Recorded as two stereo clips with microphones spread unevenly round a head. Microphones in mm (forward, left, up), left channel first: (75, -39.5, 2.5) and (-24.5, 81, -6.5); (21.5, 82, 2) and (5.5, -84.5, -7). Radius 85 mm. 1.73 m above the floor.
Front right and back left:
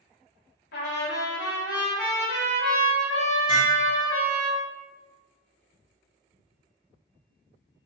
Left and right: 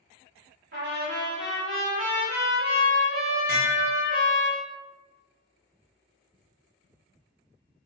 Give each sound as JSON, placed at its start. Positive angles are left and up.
{"t": 0.7, "sound": "a trumpet", "azimuth_deg": -65, "distance_m": 1.2}
{"t": 3.5, "sound": "dishes clattering", "azimuth_deg": -110, "distance_m": 1.1}